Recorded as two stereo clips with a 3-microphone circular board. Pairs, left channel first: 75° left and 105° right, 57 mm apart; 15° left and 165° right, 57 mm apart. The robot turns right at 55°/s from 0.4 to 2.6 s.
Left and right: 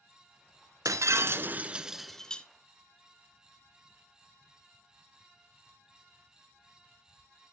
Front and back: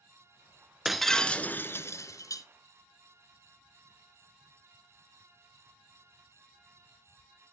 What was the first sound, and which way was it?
Breaking glass, 80° right.